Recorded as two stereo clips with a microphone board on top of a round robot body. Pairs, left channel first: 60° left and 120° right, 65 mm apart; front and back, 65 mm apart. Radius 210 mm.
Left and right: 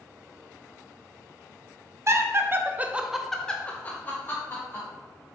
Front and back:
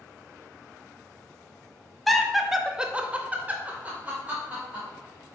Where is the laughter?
90° right, 0.8 m; by 4.9 s 110° left, 1.2 m.